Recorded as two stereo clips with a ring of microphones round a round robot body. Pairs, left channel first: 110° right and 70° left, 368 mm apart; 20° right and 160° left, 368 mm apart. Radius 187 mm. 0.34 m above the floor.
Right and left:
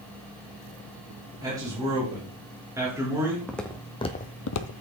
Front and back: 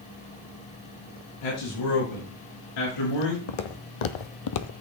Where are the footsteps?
25° right, 1.4 m; by 4.7 s 75° right, 0.6 m.